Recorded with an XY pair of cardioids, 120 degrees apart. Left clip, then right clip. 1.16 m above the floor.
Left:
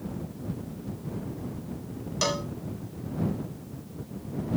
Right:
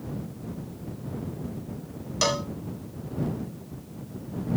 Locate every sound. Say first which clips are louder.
2.2 s a cowbell: right 3 dB; 15° right